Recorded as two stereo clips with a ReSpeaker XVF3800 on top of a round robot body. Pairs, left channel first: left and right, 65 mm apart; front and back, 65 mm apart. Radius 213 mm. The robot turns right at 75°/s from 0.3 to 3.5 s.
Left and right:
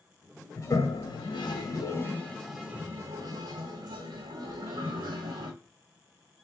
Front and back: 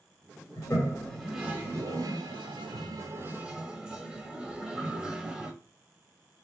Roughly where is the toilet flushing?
Ahead left.